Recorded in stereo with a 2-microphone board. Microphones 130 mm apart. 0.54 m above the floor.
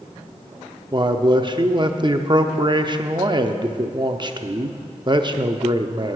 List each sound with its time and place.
0.9 s a man speaking: 35° right (ahead or behind), 0.7 m